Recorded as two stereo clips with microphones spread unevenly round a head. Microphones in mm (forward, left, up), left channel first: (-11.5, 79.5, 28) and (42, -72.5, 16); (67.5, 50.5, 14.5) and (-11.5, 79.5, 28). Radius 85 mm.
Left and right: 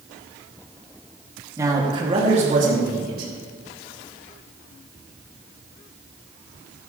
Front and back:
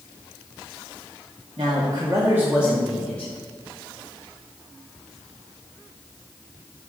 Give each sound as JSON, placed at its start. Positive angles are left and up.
{"t": 1.6, "sound": "a man speaking", "azimuth_deg": -145, "distance_m": 2.5}